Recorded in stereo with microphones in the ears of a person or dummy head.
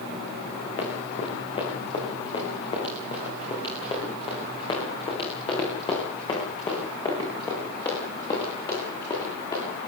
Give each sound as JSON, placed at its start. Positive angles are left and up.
{"t": 0.8, "sound": "running footsteps", "side_deg": 35, "distance_m": 8.0}